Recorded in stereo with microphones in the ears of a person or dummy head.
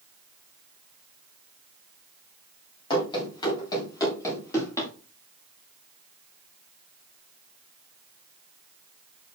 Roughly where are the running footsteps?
Left.